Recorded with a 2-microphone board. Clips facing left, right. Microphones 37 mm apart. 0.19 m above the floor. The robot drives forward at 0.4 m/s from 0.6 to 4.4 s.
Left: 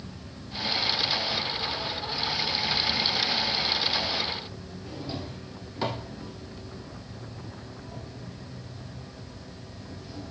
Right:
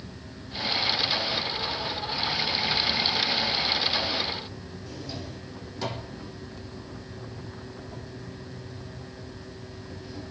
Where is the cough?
I don't hear a cough.